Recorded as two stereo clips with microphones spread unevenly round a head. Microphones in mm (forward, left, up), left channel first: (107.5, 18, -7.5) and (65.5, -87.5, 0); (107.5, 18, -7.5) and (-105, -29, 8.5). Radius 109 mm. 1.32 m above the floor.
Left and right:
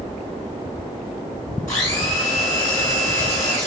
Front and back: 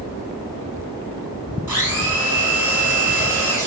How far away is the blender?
About 2 m.